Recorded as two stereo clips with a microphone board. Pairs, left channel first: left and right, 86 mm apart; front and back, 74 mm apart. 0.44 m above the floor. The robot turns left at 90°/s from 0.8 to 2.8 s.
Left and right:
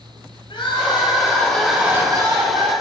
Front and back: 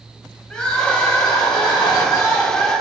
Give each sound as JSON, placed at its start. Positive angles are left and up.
{"t": 0.5, "sound": "crying", "azimuth_deg": 80, "distance_m": 1.5}